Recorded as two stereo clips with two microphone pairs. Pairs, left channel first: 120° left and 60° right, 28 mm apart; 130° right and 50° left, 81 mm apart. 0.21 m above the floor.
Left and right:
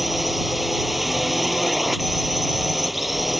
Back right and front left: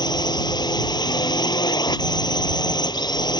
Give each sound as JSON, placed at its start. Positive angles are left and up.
{"t": 0.0, "sound": "a drone", "azimuth_deg": -150}